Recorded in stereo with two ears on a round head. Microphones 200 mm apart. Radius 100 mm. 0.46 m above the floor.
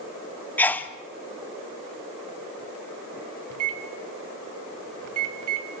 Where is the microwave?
75° right (ahead or behind), 2 m.